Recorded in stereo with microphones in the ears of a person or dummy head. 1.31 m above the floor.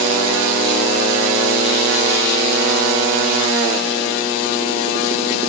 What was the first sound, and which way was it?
Only background noise.